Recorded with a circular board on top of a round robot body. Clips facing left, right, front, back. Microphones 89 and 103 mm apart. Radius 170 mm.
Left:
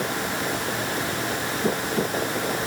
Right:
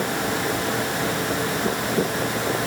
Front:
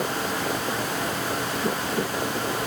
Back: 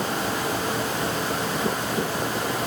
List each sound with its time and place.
Only background noise.